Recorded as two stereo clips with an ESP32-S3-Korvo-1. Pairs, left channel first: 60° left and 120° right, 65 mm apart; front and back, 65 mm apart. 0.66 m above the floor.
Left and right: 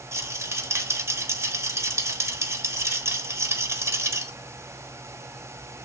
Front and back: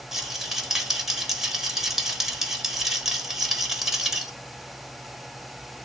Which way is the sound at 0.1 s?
100° right.